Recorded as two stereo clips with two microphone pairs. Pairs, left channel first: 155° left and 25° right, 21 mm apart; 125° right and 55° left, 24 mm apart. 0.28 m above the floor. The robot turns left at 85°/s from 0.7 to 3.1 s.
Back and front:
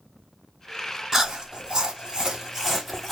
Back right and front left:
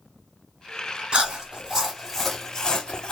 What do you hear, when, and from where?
1.1 s chewing: 30° left, 1.2 m; by 3.1 s 140° right, 1.2 m